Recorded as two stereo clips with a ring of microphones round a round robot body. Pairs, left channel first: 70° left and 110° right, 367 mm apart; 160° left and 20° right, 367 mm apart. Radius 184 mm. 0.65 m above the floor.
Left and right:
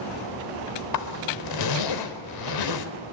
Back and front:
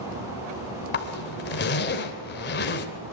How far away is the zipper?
About 2.5 m.